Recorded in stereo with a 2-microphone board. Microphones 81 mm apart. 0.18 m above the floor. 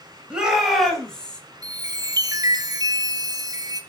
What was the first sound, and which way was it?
A shout, 10° right (ahead or behind).